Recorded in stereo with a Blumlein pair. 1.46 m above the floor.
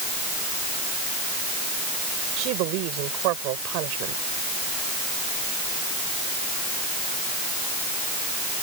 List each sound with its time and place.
2.4 s a woman speaking: 40° right